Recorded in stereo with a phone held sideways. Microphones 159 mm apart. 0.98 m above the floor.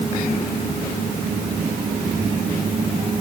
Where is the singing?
No singing in this recording.